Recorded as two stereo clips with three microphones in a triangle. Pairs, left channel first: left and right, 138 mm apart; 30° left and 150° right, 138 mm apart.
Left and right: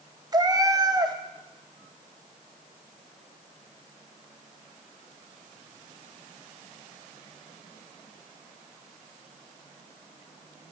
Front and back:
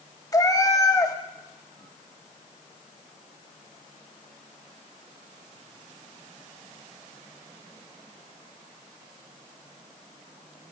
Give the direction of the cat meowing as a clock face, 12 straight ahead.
1 o'clock.